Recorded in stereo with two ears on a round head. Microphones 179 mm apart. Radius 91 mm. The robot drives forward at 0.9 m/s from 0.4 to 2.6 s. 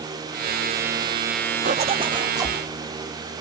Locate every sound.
1.6 s a zipper: 40° right (ahead or behind), 0.6 m; by 2.6 s 15° right (ahead or behind), 1.4 m